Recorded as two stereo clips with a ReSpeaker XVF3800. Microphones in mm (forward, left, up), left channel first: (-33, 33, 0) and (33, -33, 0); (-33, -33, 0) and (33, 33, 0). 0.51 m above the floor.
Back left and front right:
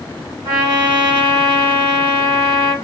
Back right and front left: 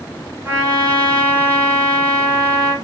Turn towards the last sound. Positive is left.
turn(degrees=-15)